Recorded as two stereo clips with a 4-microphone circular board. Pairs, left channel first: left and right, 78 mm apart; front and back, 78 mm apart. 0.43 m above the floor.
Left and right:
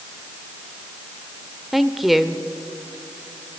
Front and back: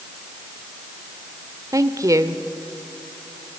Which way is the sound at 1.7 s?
175° right.